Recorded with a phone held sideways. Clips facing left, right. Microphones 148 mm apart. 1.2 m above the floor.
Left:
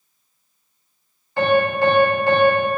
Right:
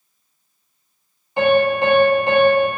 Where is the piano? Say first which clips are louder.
Right 2 dB; 20° right (ahead or behind), 0.6 m.